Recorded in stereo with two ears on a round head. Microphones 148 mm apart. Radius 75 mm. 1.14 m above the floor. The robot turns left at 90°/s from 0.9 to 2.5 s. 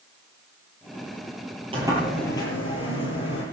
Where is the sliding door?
145° right, 9.5 m; by 3.4 s 145° left, 9.5 m.